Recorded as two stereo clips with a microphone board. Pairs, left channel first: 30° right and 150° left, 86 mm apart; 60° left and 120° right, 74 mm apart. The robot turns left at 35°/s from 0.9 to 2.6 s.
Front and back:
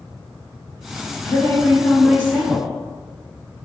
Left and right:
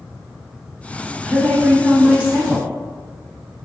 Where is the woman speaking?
40° right, 1.3 m; by 2.7 s 90° right, 1.3 m.